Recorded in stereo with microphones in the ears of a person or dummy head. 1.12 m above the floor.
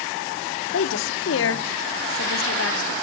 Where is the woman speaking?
65° left (ahead or behind), 0.8 m.